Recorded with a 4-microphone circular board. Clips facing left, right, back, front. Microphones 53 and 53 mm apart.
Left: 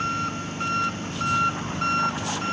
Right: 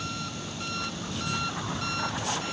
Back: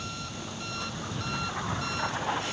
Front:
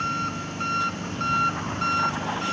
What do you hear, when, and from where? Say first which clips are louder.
0.0 s an engine running: left 9 dB, front 11 dB; 45° left